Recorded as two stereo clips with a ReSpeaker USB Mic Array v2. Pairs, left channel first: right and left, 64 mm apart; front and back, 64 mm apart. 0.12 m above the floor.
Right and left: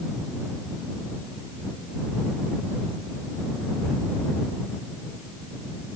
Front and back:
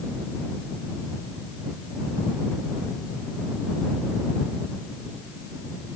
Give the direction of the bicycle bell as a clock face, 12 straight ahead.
No bicycle bell in this recording.